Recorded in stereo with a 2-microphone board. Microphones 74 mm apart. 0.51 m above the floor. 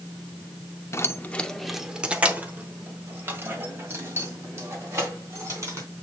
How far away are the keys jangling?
About 0.6 m.